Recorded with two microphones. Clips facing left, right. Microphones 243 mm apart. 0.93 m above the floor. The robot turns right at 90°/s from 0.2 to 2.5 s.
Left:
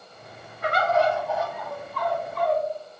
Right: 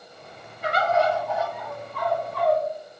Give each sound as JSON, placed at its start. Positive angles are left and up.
{"t": 0.6, "sound": "a bird", "azimuth_deg": 110, "distance_m": 1.8}